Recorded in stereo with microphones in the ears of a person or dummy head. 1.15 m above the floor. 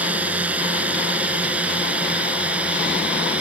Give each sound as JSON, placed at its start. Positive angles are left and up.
{"t": 0.0, "sound": "a drone", "side_deg": -10}